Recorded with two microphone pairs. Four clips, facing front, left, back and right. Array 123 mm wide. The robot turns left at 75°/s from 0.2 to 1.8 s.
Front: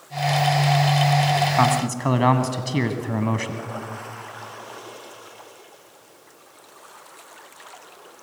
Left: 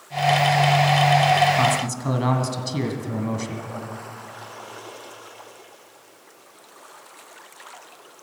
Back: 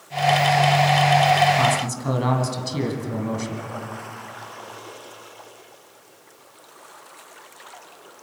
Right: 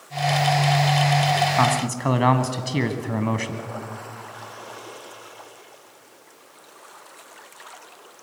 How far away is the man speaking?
About 1.8 m.